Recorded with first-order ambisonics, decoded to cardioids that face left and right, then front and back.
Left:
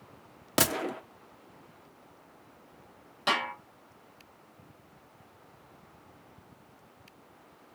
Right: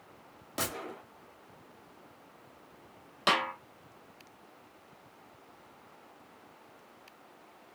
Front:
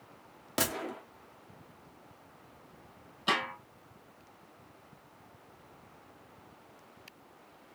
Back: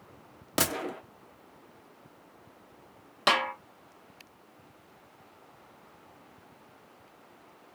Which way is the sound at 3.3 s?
160° right.